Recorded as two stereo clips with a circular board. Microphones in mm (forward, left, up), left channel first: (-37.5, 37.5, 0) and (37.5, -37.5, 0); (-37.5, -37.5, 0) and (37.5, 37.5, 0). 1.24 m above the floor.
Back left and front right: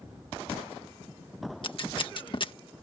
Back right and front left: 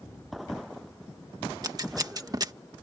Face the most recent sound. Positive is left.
turn(degrees=95)